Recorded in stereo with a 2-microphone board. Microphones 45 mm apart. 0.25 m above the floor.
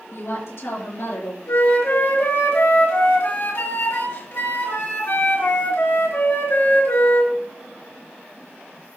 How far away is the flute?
About 4 m.